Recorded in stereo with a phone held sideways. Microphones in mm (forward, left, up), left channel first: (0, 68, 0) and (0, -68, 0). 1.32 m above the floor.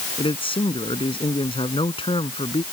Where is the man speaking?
40° left (ahead or behind).